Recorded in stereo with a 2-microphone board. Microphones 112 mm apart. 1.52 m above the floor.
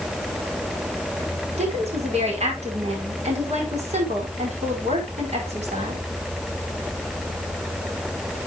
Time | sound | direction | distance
1.6 | a woman speaking | 75° right (ahead or behind) | 4.5 m